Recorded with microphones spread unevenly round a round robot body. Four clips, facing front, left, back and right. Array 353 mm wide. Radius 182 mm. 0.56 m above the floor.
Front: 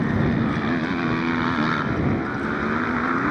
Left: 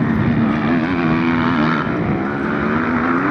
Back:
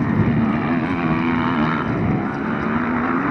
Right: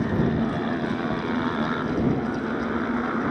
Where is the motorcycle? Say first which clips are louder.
Left 7 dB, back 3 dB; 115° left.